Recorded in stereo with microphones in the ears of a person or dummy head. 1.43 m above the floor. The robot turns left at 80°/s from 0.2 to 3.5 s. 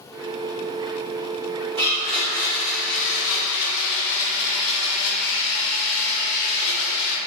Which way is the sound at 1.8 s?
155° right.